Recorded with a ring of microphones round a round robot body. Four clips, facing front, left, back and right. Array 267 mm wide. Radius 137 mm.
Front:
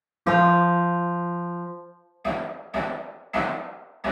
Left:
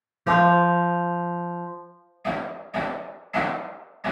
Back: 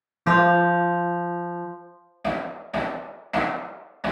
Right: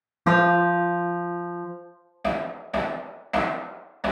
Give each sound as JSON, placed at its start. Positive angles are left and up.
{"t": 0.3, "sound": "a guitar", "azimuth_deg": -95, "distance_m": 0.9}
{"t": 2.2, "sound": "hammering", "azimuth_deg": -120, "distance_m": 0.9}